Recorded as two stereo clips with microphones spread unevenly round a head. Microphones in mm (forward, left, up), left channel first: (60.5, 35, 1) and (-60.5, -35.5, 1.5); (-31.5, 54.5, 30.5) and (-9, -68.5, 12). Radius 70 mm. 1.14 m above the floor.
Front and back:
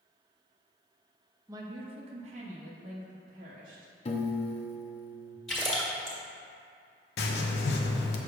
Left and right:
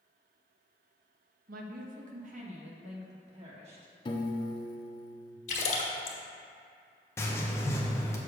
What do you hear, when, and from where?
1.5 s a woman speaking: 80° right, 0.7 m; by 3.9 s 120° right, 2 m
4.0 s a piano: 50° left, 0.6 m
5.5 s a splash: 115° left, 1.6 m
7.2 s writing: 25° left, 0.7 m